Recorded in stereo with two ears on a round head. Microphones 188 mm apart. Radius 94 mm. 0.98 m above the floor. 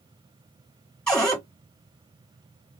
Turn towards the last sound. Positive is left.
turn(degrees=5)  # may be behind; listen again after turning